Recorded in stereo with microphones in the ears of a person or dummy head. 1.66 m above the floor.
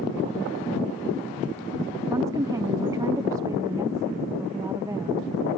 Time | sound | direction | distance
2.1 | a woman speaking | 15° right (ahead or behind) | ?